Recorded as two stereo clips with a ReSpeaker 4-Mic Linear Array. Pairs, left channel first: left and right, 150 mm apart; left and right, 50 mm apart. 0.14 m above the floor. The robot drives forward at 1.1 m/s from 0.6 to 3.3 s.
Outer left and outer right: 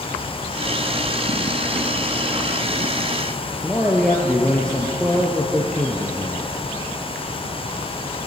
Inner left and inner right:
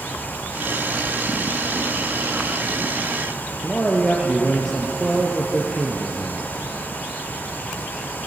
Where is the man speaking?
5° left (ahead or behind), 3 m.